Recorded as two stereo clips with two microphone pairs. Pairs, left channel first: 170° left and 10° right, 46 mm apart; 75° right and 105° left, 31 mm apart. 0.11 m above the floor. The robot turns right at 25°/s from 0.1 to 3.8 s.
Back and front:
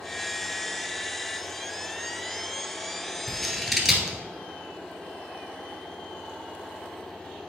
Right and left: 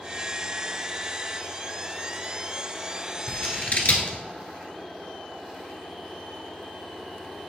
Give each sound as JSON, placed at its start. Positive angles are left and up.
{"t": 3.3, "sound": "scissors", "azimuth_deg": -105, "distance_m": 1.2}